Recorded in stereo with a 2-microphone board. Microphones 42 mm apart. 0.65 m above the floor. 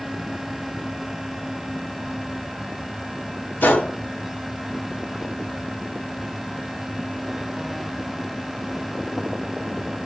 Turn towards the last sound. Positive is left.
turn(degrees=55)  # may be behind; listen again after turning